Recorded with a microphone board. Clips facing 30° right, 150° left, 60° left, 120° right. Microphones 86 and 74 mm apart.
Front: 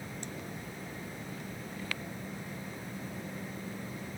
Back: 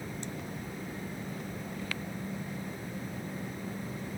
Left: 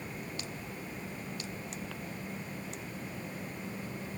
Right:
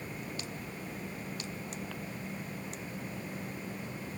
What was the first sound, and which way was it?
Only background noise.